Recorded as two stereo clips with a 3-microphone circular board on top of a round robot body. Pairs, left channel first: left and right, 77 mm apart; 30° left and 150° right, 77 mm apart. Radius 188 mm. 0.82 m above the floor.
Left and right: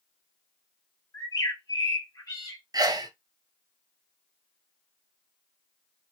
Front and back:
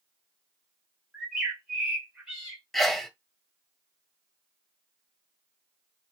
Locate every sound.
1.1 s a bird: 130° left, 1.4 m
2.7 s a sneeze: 60° right, 0.8 m